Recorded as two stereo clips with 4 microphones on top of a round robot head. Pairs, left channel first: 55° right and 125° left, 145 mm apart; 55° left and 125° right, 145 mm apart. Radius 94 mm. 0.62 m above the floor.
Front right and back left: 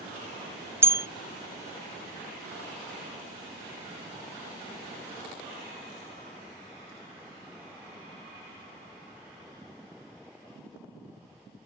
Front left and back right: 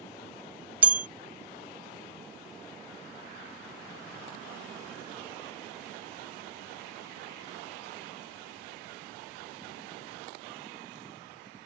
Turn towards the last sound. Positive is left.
turn(degrees=170)